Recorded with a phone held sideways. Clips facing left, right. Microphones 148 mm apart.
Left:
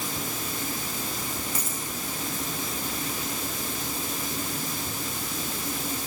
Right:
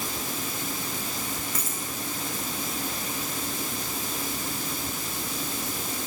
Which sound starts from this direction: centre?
A dropped coin, at 1.6 s.